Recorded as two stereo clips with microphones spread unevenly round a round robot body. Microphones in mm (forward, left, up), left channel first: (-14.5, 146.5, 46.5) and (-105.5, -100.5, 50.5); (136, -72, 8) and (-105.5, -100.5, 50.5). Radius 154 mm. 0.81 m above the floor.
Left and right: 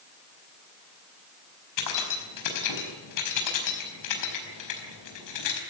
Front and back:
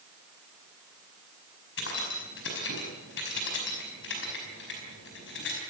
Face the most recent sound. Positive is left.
turn(degrees=60)